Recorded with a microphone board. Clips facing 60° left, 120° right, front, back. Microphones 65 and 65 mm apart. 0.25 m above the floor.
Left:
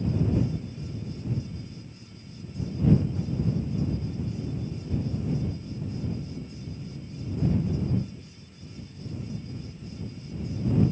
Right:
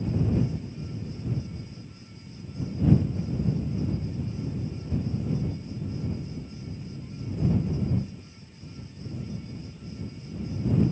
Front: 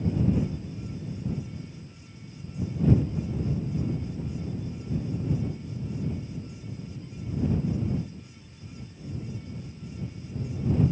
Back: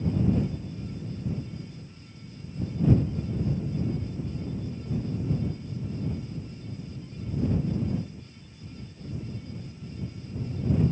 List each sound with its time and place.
Only background noise.